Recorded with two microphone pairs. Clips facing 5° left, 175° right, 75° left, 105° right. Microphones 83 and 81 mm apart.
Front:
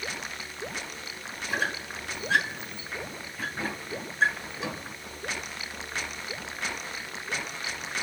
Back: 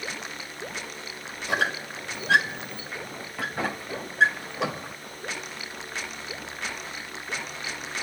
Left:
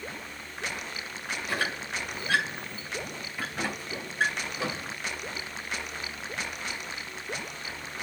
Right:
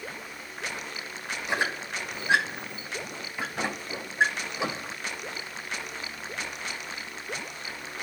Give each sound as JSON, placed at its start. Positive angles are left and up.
{"t": 1.5, "sound": "a squeak", "azimuth_deg": -175, "distance_m": 2.5}